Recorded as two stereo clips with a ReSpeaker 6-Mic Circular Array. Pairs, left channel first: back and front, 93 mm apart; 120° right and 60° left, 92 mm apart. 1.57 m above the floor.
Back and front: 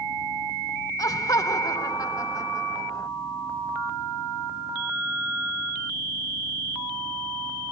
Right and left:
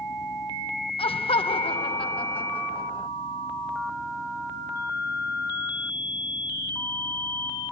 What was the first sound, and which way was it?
Laughter, 130° right.